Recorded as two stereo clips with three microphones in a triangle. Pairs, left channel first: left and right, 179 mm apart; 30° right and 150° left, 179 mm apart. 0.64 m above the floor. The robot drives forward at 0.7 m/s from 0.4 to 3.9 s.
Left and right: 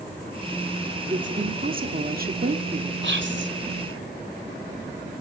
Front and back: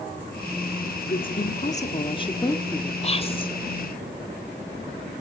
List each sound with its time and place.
1.1 s a woman speaking: 55° right, 1.7 m; by 2.9 s 110° right, 1.6 m
3.0 s whispering: 85° right, 2.5 m; by 3.5 s 95° right, 2.5 m